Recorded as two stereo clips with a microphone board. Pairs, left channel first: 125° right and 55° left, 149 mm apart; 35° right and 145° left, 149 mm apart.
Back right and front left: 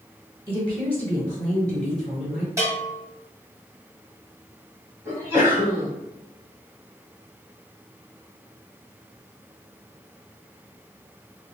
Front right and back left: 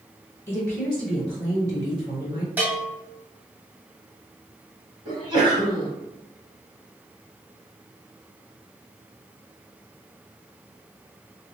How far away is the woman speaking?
About 1.5 m.